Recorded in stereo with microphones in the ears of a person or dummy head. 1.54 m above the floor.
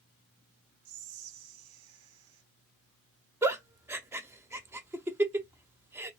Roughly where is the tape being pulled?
I don't hear tape being pulled.